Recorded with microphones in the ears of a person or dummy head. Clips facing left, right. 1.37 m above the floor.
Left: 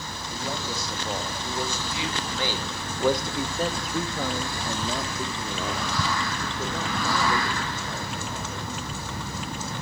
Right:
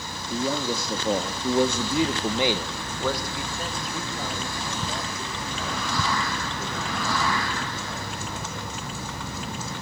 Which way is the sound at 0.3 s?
75° right (ahead or behind).